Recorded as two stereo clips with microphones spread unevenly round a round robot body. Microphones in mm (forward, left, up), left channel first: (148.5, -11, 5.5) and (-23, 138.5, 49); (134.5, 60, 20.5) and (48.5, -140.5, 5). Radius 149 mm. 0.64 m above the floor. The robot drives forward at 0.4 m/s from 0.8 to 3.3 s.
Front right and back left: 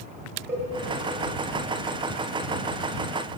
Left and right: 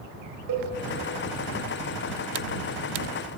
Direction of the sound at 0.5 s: 140° right.